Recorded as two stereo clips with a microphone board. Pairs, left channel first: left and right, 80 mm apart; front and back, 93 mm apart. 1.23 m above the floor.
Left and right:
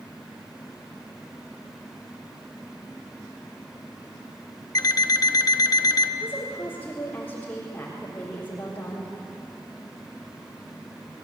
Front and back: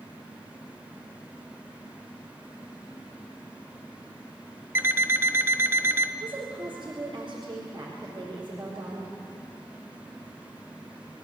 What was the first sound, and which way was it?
An alarm clock, 120° left.